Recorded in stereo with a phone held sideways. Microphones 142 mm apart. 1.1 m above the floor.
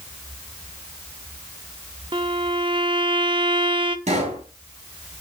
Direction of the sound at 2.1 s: 35° right (ahead or behind).